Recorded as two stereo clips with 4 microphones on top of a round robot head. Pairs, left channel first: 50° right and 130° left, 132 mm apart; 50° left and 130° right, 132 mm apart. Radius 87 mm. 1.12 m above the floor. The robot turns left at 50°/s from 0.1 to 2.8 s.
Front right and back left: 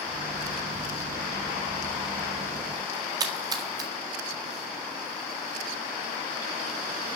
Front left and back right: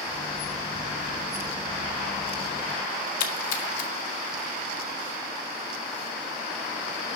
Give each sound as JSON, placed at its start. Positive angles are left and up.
{"t": 3.2, "sound": "a splash", "azimuth_deg": 70, "distance_m": 1.8}